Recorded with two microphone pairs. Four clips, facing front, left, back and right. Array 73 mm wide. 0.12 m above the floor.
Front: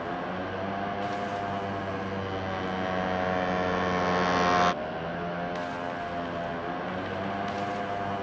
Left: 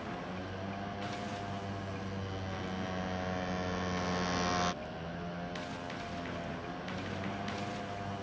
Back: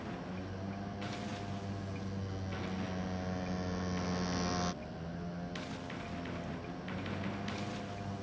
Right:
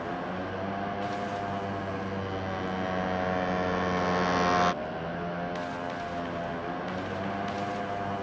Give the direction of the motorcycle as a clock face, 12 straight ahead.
1 o'clock.